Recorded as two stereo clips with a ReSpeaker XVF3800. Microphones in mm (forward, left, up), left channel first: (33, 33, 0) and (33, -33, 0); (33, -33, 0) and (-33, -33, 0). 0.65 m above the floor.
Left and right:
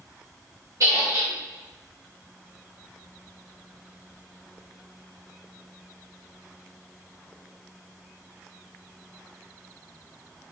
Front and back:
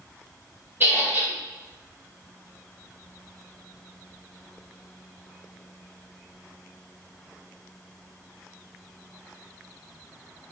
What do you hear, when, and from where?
0.8 s a squeak: 125° right, 1.4 m